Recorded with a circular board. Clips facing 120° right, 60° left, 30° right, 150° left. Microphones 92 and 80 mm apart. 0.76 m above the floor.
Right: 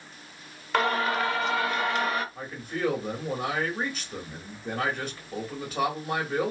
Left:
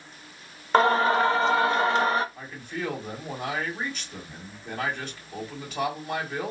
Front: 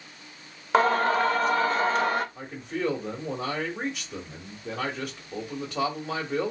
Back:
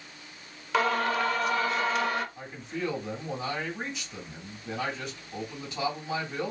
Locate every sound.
0.7 s singing: 10° left, 0.6 m
2.4 s a man speaking: 65° right, 1.8 m